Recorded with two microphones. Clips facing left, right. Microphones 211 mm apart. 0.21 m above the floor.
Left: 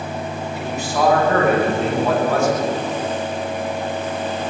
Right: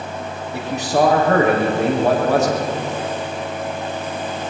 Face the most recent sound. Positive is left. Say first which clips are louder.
# right 6 dB
turn(degrees=-75)  # may be behind; listen again after turning